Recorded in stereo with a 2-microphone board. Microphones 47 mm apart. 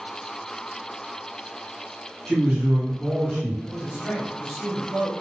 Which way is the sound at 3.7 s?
25° right (ahead or behind).